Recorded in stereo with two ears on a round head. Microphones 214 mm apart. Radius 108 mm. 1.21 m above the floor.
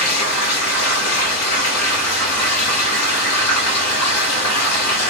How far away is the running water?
About 1.6 m.